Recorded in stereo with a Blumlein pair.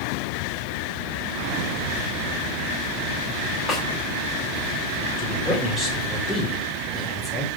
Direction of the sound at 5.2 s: 5° left.